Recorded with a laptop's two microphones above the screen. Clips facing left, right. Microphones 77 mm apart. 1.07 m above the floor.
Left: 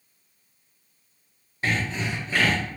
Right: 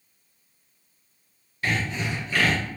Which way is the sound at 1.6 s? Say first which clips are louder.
Even; 30° left (ahead or behind).